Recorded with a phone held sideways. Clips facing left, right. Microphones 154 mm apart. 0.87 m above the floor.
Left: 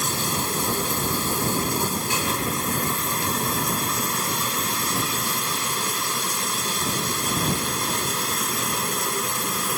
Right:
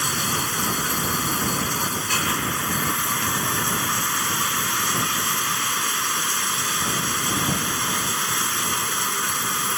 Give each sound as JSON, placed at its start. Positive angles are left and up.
{"t": 0.0, "sound": "running water", "side_deg": 30}